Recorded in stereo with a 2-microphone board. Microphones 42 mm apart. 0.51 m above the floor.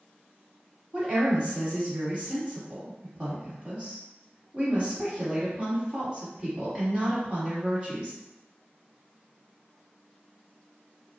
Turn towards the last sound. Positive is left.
turn(degrees=-30)  # may be behind; listen again after turning